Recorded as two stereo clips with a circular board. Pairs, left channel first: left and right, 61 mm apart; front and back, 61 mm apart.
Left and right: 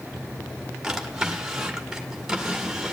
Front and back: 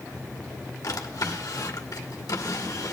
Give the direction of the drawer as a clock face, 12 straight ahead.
12 o'clock.